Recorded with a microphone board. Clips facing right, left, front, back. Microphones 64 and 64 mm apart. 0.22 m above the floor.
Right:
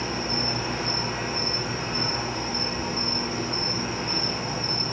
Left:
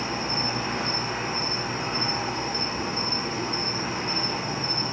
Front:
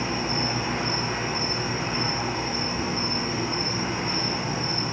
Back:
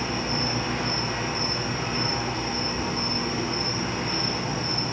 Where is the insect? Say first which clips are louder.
Even, front 1 dB; 60° left, 0.8 m.